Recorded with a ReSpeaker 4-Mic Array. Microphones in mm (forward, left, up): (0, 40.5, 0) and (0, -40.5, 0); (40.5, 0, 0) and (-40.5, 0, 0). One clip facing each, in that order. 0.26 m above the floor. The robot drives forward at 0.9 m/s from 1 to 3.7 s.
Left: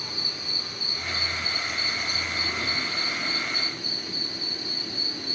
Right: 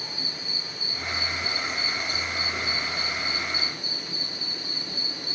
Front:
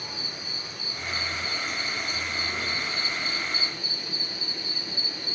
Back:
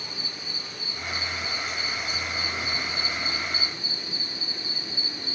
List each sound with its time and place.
0.0 s an insect: 85° left, 4 m; by 5.3 s 120° left, 4.5 m